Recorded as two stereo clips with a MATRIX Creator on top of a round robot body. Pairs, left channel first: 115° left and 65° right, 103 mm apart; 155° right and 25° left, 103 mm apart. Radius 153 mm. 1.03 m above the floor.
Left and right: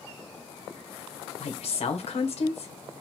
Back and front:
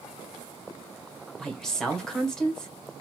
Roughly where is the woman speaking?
Behind left.